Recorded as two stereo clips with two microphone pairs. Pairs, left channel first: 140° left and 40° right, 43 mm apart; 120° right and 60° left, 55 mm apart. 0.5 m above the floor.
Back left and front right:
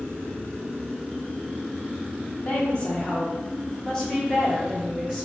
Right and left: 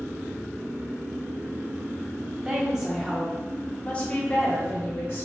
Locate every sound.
2.5 s a woman speaking: 115° left, 1.3 m; by 5.3 s 125° right, 1.6 m